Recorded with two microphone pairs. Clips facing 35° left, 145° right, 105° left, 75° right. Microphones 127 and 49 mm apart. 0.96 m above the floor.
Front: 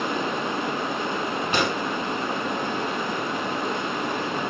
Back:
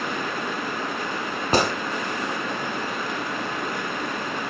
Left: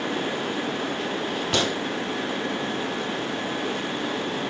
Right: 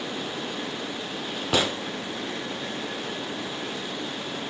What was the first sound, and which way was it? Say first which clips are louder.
A gunshot: back 5 dB, right 1 dB; 160° right.